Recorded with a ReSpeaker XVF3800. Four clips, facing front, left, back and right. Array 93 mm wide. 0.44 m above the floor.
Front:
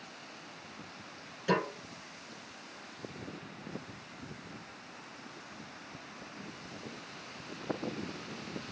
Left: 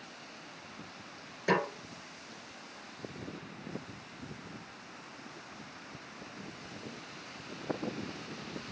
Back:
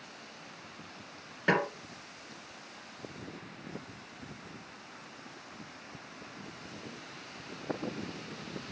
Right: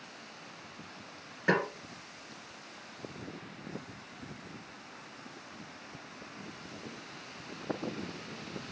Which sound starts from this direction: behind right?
A snare drum, at 1.5 s.